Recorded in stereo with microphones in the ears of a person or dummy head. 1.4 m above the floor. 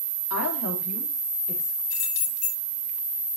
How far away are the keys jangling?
About 6.5 m.